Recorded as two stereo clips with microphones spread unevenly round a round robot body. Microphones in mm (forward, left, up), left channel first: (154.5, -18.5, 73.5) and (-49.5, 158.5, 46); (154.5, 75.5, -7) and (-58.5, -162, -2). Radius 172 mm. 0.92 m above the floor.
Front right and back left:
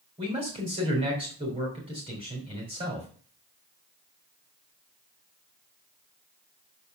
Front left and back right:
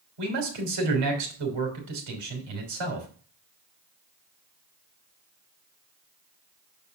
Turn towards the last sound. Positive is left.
turn(degrees=-150)